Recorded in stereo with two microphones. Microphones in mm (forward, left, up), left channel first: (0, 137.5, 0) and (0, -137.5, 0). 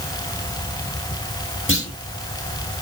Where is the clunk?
45° left (ahead or behind), 5 m.